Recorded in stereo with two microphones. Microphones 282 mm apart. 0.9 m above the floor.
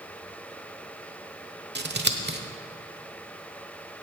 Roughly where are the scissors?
Right.